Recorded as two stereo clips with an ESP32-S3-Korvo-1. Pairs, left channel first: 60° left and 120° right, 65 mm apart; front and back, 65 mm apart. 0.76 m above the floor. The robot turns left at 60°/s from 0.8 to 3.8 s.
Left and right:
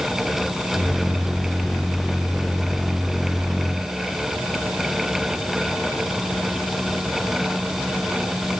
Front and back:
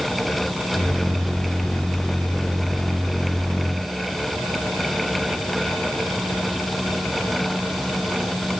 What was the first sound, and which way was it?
Only background noise.